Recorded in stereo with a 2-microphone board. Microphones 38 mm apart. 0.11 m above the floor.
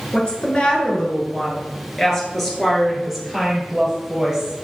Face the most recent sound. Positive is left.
turn(degrees=-10)  # may be behind; listen again after turning